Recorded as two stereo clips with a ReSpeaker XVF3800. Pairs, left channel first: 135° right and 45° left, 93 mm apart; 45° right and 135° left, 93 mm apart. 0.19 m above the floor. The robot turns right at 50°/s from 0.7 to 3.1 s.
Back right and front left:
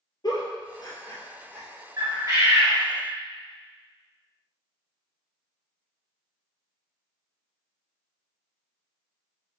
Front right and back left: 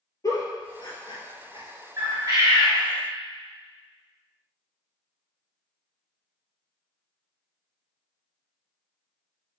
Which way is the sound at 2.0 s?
80° left.